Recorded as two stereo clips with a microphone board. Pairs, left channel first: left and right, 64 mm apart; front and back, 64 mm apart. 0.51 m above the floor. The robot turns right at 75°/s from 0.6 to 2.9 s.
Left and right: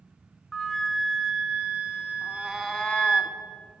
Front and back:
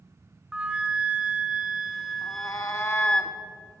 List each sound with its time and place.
0.5 s a flute: 150° left, 0.9 m; by 3.2 s 40° right, 0.9 m
2.2 s a cat meowing: 25° right, 0.5 m; by 3.4 s 25° left, 0.5 m